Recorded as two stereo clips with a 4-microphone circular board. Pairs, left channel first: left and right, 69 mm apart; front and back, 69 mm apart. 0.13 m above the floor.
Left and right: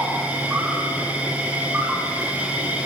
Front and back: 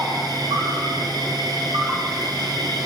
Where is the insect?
160° right, 5.5 m.